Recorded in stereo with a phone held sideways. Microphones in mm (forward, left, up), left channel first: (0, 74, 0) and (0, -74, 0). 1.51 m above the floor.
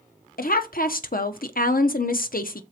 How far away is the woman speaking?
About 0.7 m.